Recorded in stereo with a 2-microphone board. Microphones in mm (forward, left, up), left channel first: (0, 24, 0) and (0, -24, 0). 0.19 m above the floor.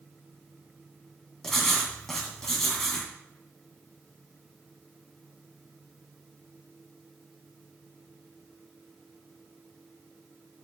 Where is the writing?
10° left (ahead or behind), 1.9 m.